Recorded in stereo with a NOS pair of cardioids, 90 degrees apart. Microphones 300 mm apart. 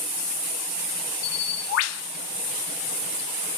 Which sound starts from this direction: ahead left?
A bird, at 1.2 s.